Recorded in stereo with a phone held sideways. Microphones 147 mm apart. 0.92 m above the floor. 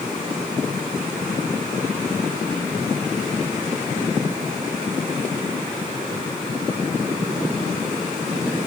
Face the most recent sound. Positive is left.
No sound to turn to.